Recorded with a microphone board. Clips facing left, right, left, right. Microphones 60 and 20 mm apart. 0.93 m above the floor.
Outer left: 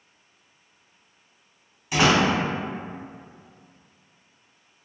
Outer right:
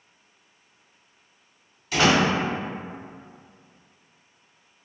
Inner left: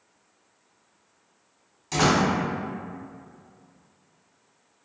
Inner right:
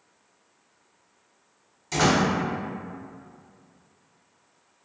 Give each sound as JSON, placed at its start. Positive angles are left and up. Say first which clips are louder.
{"t": 1.9, "sound": "a door slam", "louder": "even, even", "side_deg": 20, "distance_m": 1.5}